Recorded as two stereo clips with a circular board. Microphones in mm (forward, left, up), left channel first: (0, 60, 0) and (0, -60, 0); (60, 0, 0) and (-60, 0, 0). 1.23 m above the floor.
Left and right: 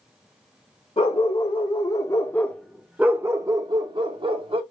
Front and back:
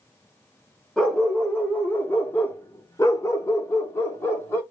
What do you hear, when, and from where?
1.0 s a dog barking: 85° left, 1.4 m; by 4.6 s 65° right, 1.6 m